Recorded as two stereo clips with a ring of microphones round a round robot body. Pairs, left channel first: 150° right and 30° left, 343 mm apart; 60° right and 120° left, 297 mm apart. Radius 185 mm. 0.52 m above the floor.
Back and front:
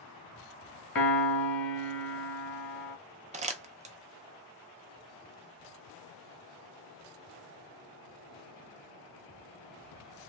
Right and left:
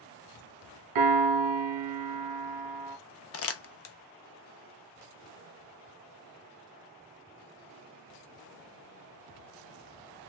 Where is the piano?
160° left, 1.0 m.